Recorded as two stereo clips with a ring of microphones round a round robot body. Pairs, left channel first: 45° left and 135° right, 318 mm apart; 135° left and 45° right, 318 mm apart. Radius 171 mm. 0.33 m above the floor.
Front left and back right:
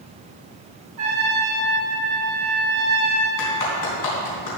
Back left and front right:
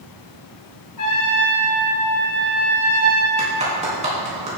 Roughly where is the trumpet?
Behind.